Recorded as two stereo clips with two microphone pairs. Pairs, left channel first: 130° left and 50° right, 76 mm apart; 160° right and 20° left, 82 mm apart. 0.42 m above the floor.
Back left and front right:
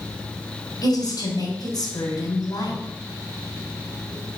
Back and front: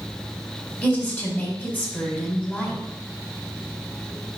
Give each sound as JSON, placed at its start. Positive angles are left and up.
{"t": 0.8, "sound": "a woman speaking", "azimuth_deg": 130, "distance_m": 2.5}